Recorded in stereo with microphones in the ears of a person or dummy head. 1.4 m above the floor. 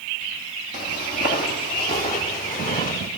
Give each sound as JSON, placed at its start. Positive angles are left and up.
{"t": 0.7, "sound": "footsteps", "side_deg": 50, "distance_m": 3.5}